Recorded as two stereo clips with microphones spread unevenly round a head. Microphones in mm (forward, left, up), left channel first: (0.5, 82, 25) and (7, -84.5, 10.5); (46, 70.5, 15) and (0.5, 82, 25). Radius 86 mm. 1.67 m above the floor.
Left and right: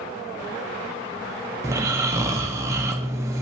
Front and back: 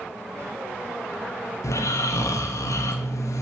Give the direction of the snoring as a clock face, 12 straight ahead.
12 o'clock.